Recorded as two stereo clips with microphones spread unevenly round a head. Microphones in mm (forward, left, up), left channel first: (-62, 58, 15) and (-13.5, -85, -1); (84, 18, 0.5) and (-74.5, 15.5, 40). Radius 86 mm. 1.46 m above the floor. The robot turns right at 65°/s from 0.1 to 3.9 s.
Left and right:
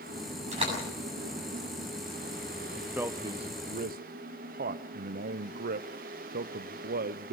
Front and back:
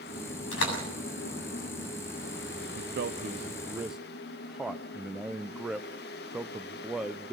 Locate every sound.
0.5 s a door slam: 15° right, 7.5 m; by 0.8 s 5° left, 7.5 m
2.8 s a man speaking: 165° right, 0.7 m; by 7.3 s 90° right, 0.7 m